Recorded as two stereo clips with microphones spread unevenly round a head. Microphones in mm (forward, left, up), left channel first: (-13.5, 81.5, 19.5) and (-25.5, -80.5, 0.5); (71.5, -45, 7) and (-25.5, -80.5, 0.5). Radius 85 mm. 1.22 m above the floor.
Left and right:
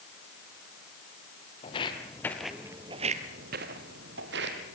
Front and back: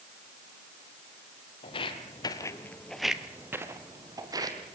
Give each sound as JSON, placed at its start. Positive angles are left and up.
{"t": 1.6, "sound": "footsteps", "azimuth_deg": 40, "distance_m": 2.0}